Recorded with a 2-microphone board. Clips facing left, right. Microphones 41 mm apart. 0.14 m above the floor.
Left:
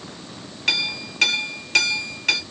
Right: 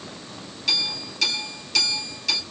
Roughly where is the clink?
Left.